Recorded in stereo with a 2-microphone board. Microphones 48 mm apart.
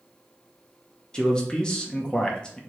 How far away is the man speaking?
About 0.6 m.